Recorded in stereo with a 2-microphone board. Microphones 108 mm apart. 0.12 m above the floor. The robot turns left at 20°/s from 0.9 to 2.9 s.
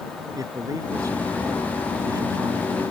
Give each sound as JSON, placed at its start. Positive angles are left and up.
{"t": 0.3, "sound": "a man speaking", "azimuth_deg": -75}